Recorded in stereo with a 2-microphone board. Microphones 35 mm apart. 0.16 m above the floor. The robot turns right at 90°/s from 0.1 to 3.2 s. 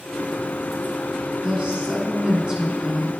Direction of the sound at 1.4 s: 150° right.